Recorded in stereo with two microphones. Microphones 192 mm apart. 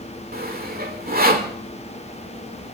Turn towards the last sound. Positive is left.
turn(degrees=-50)  # may be behind; listen again after turning